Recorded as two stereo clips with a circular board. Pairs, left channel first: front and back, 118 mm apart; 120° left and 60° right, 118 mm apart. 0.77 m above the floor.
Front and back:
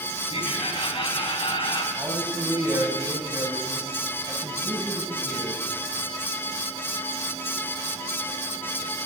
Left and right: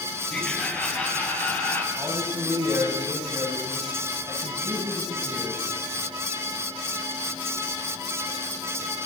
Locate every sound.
0.3 s laughter: 40° left, 6 m; by 1.9 s 50° left, 5.5 m
2.0 s a man speaking: 125° right, 7 m